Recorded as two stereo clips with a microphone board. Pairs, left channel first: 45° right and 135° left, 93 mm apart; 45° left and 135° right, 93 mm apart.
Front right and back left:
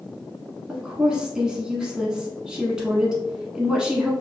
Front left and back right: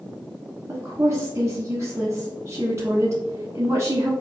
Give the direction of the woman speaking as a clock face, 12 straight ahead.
5 o'clock.